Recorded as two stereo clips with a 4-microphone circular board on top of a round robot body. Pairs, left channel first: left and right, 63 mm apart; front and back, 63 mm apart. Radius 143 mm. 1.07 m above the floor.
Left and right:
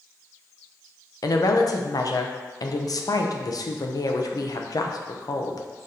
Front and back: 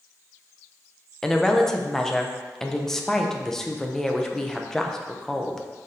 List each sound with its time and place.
1.2 s a woman speaking: 85° left, 0.7 m